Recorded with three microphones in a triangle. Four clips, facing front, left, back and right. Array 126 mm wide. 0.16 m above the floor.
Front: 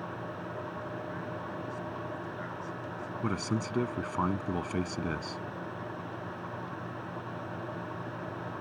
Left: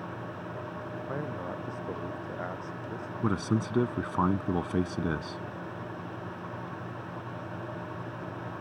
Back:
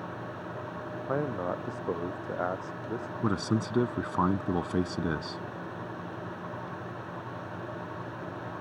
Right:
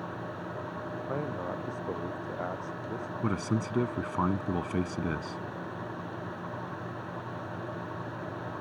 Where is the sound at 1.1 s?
170° right; by 3.1 s 165° right.